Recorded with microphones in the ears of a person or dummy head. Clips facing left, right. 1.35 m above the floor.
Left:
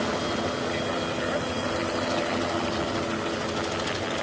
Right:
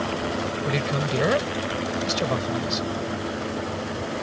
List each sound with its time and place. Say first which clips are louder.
0.7 s a man speaking: right 2 dB; 85° right